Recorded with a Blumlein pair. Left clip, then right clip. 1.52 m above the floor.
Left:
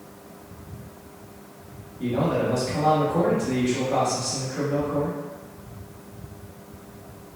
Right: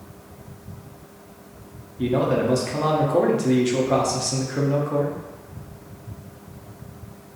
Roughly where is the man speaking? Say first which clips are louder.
Right 3 dB; ahead right.